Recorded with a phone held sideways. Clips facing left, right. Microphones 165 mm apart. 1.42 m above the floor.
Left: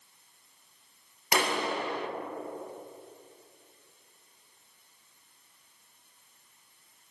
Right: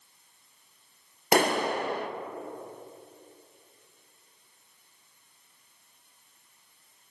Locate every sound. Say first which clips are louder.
1.3 s a clap: right 5 dB; 45° right (ahead or behind), 0.8 m